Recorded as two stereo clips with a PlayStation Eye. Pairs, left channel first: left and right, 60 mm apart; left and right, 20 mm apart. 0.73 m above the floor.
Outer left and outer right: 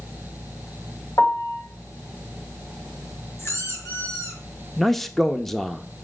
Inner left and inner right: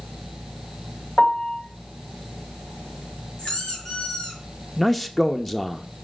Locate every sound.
1.2 s a piano: 85° left, 1.9 m
3.4 s a squeak: 50° left (ahead or behind), 5.5 m
4.8 s a man speaking: 5° left (ahead or behind), 0.7 m